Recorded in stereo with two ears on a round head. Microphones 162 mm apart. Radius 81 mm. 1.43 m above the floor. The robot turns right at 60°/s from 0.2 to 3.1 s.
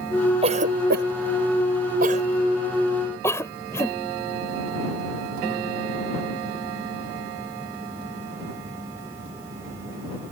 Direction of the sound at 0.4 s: 35° right (ahead or behind).